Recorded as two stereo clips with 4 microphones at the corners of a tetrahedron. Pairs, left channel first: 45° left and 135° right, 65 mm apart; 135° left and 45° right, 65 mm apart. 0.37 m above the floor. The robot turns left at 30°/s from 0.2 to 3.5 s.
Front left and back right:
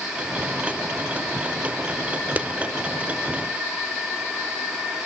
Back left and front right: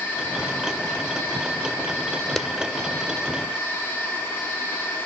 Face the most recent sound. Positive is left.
turn(degrees=180)